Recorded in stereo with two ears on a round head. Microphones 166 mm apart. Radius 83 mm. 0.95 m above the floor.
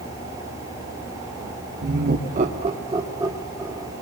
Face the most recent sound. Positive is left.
turn(degrees=-10)  # may be behind; listen again after turning